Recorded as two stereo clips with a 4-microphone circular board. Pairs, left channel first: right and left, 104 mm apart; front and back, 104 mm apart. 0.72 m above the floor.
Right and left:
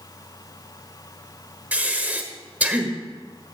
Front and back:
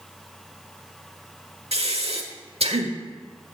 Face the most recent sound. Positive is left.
turn(degrees=165)